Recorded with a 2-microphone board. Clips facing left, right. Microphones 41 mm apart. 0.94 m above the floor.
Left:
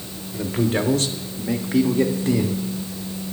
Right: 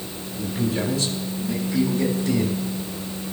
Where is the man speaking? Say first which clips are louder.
Left 3 dB; 55° left (ahead or behind), 2.5 m; by 2.6 s 30° left (ahead or behind), 2 m.